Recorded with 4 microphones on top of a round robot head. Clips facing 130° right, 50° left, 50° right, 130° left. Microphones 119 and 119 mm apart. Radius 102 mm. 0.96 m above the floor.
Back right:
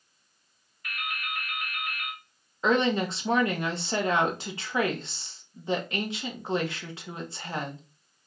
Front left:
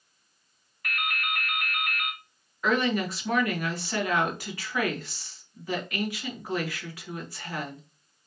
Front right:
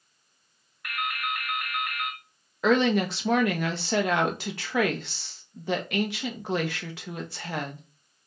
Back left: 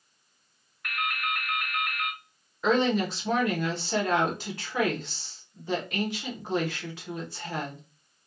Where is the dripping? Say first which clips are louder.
Front left 4 dB, even; 35° left, 1.3 m.